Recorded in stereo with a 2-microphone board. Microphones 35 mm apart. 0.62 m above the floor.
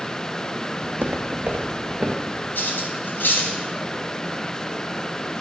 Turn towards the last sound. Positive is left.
turn(degrees=85)